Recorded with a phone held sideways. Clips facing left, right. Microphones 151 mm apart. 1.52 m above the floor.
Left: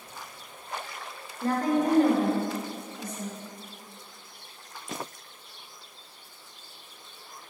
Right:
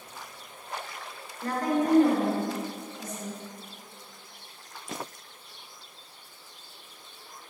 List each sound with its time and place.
1.4 s a woman speaking: 25° left (ahead or behind), 1.4 m; by 3.4 s 60° left (ahead or behind), 3 m